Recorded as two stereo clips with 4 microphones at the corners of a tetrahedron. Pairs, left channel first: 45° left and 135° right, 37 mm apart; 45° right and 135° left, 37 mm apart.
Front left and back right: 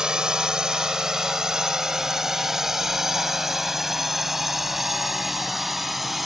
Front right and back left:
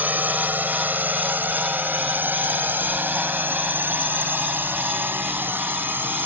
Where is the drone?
160° left; by 6.3 s 140° left.